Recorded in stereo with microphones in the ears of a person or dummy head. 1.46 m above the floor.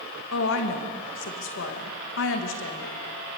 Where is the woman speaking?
55° left (ahead or behind), 1.8 m.